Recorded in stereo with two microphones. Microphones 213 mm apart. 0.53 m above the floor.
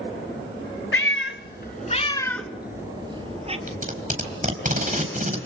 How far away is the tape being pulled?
About 4 m.